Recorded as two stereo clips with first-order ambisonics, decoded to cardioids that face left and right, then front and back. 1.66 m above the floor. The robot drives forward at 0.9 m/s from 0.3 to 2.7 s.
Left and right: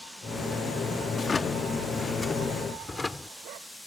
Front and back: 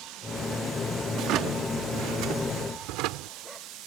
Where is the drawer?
155° left; by 3.4 s 170° left.